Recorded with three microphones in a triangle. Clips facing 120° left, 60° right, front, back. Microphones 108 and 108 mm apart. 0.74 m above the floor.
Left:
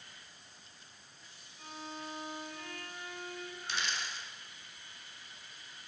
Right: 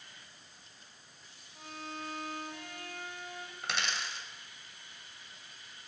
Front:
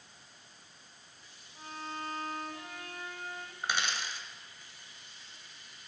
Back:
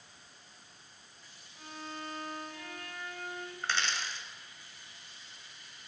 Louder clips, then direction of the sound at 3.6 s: Right 3 dB, front 1 dB; 75° right.